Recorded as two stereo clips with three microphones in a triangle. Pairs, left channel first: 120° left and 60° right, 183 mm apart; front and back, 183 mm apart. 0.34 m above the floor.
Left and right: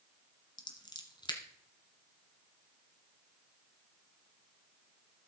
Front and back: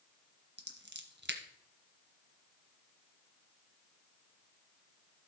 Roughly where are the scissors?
Behind.